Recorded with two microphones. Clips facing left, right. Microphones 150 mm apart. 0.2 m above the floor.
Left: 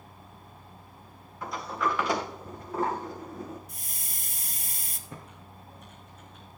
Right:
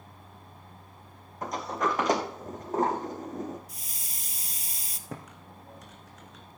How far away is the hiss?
About 1.2 m.